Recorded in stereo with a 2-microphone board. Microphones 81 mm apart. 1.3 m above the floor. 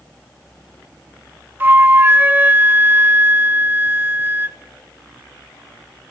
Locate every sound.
1.6 s a flute: 25° right (ahead or behind), 0.9 m